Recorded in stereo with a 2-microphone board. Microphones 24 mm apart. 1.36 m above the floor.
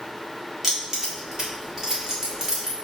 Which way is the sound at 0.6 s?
20° right (ahead or behind).